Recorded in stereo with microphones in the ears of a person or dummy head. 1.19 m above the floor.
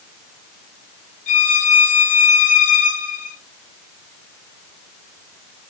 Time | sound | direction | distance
1.3 | a violin | 40° left (ahead or behind) | 0.8 m